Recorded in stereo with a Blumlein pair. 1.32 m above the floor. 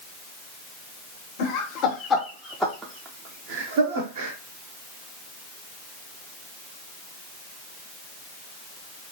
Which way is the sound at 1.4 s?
45° left.